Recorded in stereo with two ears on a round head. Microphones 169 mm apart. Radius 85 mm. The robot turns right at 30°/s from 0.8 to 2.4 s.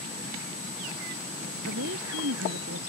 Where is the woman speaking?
80° right; by 2.9 s 75° right (ahead or behind).